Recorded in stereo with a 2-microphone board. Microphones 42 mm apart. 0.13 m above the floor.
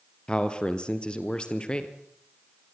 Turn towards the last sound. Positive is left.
turn(degrees=25)  # may be behind; listen again after turning